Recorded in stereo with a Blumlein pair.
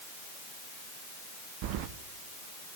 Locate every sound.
1.6 s keys jangling: 45° right, 0.8 m